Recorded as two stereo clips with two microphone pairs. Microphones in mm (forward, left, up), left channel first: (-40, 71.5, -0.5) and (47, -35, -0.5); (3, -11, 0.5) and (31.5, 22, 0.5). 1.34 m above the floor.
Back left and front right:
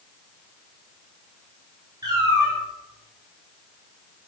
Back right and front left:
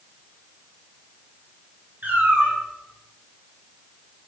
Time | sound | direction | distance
2.0 | a cat meowing | 10° left | 5.5 m